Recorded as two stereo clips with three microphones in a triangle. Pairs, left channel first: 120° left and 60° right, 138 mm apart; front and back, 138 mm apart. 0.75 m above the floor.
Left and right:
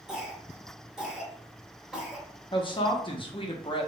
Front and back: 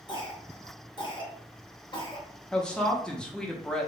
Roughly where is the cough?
Ahead left.